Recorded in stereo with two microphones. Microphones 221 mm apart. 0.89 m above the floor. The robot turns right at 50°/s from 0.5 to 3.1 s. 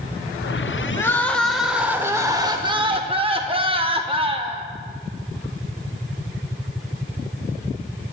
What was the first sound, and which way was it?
Crying, 10° left (ahead or behind).